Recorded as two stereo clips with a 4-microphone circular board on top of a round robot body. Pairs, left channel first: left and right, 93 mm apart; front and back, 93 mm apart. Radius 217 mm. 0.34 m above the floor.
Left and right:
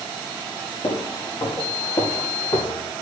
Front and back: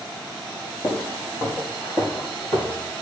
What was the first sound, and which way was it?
Footsteps, 60° left.